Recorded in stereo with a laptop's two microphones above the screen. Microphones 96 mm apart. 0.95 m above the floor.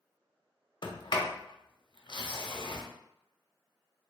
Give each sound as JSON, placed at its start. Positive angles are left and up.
{"t": 0.8, "sound": "a sliding door", "side_deg": 55, "distance_m": 0.8}